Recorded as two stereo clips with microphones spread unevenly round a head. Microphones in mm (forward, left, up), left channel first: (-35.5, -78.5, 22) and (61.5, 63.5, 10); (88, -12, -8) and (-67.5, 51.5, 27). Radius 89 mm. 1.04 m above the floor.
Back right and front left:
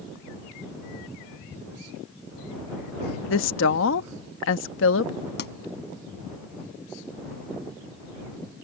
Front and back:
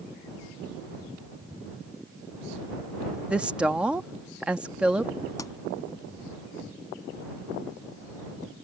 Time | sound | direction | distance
3.3 | a woman speaking | 115° right | ?
5.4 | a pop | 95° right | ?